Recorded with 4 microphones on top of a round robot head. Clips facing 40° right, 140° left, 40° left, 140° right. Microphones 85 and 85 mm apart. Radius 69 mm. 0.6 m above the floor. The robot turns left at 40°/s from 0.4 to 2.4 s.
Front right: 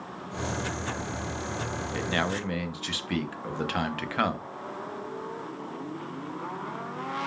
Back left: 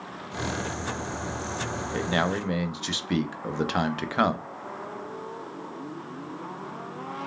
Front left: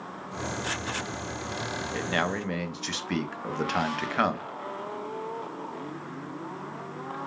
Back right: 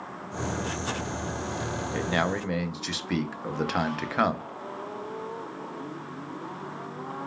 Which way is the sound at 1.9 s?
160° left.